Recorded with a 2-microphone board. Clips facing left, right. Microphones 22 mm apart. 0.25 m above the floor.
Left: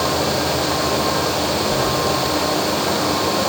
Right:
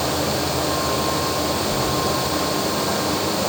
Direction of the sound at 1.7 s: 60° left (ahead or behind).